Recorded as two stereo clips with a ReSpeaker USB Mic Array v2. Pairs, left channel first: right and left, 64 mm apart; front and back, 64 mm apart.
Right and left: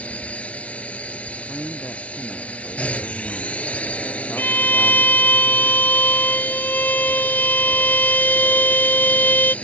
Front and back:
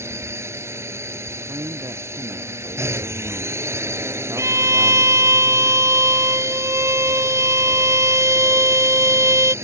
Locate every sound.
0.0 s a drone: 155° right
1.4 s a man speaking: 155° right
4.4 s a violin: 145° right